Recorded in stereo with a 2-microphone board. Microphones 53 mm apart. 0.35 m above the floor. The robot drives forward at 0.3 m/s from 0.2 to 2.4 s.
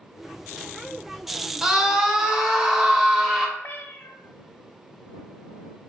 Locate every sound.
1.6 s a scream: 10° right (ahead or behind), 1.0 m; by 3.5 s 5° right (ahead or behind), 1.1 m
3.6 s a cat meowing: 45° left (ahead or behind), 0.5 m